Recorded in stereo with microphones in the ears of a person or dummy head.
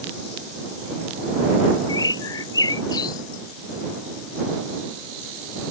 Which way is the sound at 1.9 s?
25° left (ahead or behind).